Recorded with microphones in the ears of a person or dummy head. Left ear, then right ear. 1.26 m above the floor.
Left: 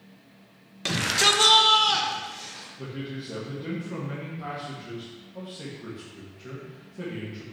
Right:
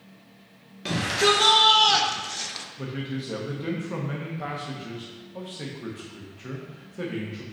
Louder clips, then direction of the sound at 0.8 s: Even; 30° left (ahead or behind).